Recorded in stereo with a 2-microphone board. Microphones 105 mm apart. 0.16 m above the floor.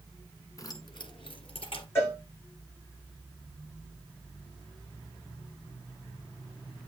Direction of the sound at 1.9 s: 25° left (ahead or behind).